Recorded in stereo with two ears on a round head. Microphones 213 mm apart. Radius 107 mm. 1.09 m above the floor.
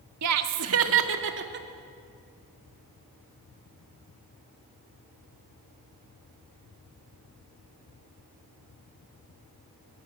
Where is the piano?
No piano in this recording.